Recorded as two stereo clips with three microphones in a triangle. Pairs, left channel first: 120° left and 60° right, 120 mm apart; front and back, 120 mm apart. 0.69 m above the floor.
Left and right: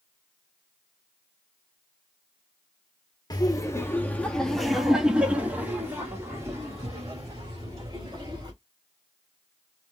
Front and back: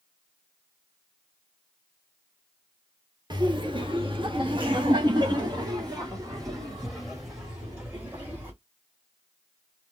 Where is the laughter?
155° left, 1.1 m; by 8.5 s 115° right, 3 m.